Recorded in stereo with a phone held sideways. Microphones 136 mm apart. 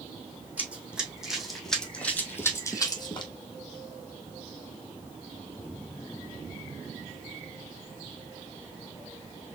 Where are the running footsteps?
10° right (ahead or behind), 2 m; by 3.3 s 35° left (ahead or behind), 1.4 m.